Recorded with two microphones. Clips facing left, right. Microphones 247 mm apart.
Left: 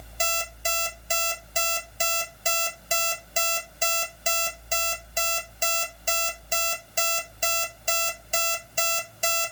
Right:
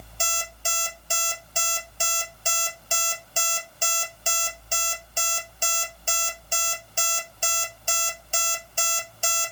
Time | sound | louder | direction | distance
0.2 | an alarm clock | left 4 dB | 20° left (ahead or behind) | 1.6 m